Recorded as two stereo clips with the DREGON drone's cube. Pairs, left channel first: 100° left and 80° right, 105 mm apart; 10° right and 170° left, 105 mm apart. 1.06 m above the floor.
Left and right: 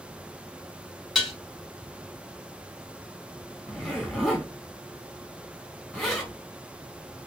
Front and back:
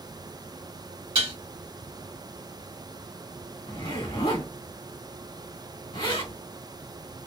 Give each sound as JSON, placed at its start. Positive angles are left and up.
{"t": 1.1, "sound": "dishes clattering", "azimuth_deg": -165, "distance_m": 1.7}
{"t": 3.7, "sound": "a zipper", "azimuth_deg": 10, "distance_m": 1.6}